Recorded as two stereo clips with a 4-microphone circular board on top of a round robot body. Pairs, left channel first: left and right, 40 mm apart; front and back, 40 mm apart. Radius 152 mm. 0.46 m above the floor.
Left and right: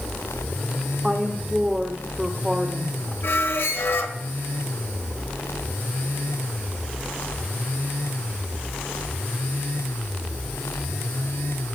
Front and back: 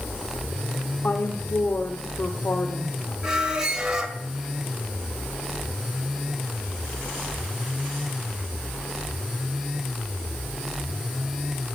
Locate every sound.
1.0 s a woman speaking: 5° right, 1.7 m
3.2 s a squeak: 105° left, 2.0 m